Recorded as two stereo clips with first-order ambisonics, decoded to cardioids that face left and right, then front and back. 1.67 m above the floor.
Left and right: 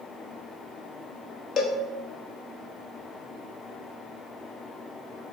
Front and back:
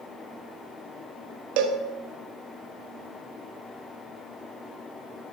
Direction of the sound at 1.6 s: 155° left.